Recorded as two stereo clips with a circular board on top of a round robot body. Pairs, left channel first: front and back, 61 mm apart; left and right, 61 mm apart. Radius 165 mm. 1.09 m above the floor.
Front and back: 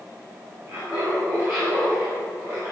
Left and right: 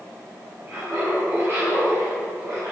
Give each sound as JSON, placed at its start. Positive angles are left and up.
{"t": 0.7, "sound": "laughter", "azimuth_deg": -140, "distance_m": 4.0}